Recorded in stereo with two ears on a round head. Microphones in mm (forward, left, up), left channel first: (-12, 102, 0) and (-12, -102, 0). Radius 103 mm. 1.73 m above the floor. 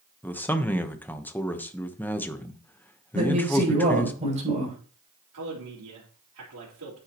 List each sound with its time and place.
0.2 s a man speaking: 10° left (ahead or behind), 1.1 m
3.1 s a man speaking: 30° right (ahead or behind), 7 m
5.3 s a man speaking: 75° right (ahead or behind), 4.5 m